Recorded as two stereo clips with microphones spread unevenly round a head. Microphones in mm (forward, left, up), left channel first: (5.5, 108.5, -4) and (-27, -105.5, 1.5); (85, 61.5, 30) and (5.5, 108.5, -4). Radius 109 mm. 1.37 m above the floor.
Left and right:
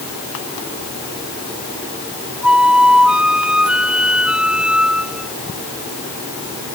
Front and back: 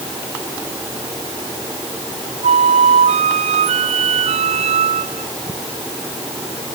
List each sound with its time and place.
2.4 s a flute: 175° left